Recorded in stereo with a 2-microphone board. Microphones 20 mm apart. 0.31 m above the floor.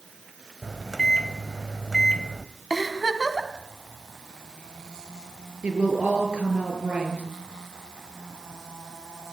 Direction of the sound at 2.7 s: 5° left (ahead or behind).